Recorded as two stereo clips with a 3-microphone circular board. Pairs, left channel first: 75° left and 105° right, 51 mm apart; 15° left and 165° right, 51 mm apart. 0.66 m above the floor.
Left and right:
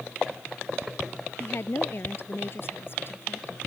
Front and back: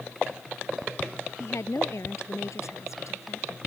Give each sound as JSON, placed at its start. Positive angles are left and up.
{"t": 1.4, "sound": "a woman speaking", "azimuth_deg": 35}